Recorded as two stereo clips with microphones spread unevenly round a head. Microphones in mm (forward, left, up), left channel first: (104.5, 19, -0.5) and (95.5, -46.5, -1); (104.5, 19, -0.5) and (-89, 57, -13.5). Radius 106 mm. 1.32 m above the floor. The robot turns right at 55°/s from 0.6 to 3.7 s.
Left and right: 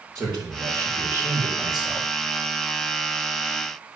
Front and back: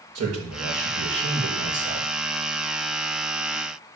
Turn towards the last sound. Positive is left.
turn(degrees=-15)